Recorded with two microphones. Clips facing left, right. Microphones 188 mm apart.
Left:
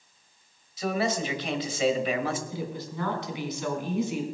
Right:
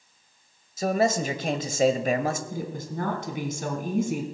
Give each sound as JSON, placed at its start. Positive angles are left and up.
{"t": 0.8, "sound": "a man speaking", "side_deg": -45, "distance_m": 1.3}
{"t": 2.5, "sound": "a woman speaking", "side_deg": -50, "distance_m": 2.5}